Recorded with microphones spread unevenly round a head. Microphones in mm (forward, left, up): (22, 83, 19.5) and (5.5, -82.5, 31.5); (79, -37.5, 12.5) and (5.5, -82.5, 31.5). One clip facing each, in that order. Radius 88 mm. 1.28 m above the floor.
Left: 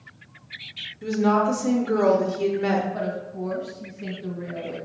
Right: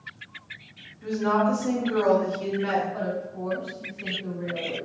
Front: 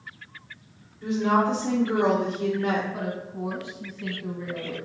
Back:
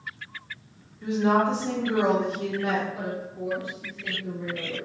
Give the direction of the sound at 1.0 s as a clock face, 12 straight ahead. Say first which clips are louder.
Left 3 dB, even; 8 o'clock.